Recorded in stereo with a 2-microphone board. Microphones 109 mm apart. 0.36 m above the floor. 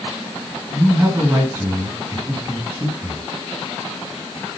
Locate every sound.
0.7 s a man speaking: 20° right (ahead or behind), 4.5 m